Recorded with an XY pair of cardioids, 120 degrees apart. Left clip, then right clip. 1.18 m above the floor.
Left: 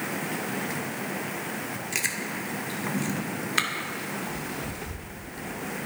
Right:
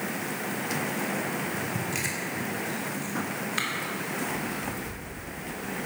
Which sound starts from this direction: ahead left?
Chewing, at 1.9 s.